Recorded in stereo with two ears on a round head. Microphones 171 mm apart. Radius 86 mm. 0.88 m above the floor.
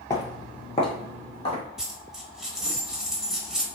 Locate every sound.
0.1 s footsteps: 20° left (ahead or behind), 0.9 m; by 1.6 s 30° left (ahead or behind), 1.7 m
1.8 s a dropped coin: 5° right (ahead or behind), 0.7 m